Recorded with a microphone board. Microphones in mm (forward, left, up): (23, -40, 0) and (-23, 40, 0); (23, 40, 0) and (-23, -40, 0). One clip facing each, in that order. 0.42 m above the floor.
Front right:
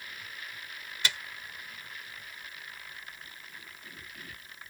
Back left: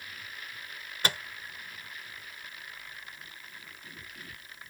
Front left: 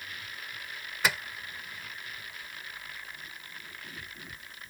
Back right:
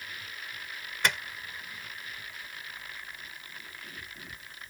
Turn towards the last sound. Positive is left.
turn(degrees=145)